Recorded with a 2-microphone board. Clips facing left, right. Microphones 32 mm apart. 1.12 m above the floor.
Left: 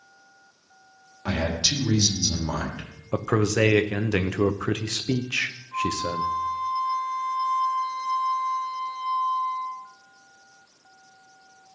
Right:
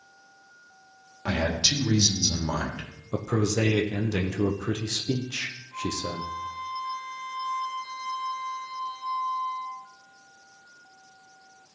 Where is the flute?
35° left (ahead or behind), 4.5 m.